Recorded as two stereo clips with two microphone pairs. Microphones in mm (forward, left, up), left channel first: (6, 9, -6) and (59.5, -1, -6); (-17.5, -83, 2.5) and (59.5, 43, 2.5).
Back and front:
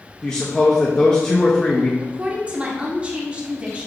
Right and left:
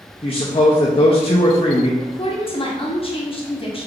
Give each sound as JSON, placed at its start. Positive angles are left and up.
{"t": 0.2, "sound": "a man speaking", "azimuth_deg": -120, "distance_m": 0.5}
{"t": 2.0, "sound": "a woman speaking", "azimuth_deg": -75, "distance_m": 0.9}